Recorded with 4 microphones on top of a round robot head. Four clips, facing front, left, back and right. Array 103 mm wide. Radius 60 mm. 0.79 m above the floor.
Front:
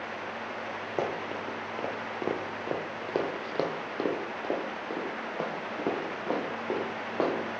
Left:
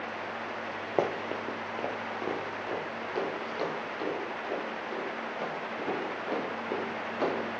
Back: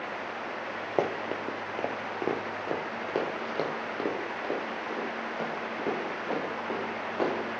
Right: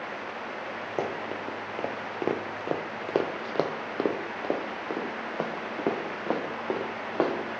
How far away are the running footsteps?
About 0.8 m.